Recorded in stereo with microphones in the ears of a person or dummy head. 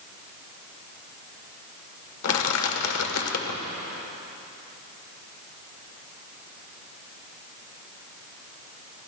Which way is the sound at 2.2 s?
80° left.